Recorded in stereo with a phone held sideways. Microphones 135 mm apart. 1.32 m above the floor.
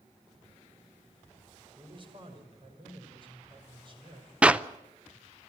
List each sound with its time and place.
1.8 s a man speaking: 40° right (ahead or behind), 5.5 m
4.4 s a clap: 10° right (ahead or behind), 0.6 m